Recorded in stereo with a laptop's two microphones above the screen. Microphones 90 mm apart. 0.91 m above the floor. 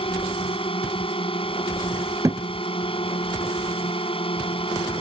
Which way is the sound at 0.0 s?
85° left.